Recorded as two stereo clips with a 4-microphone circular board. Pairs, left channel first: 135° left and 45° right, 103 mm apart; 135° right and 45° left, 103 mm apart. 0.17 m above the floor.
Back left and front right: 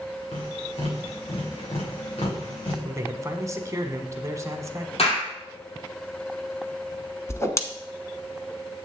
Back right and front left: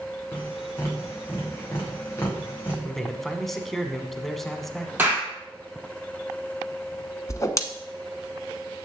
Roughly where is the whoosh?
Behind.